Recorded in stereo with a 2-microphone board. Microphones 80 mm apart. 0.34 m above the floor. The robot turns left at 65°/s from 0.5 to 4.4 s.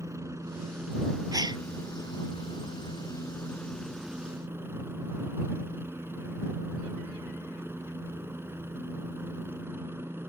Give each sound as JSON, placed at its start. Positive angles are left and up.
{"t": 0.0, "sound": "a helicopter", "azimuth_deg": -140}
{"t": 1.3, "sound": "a gasp", "side_deg": -50}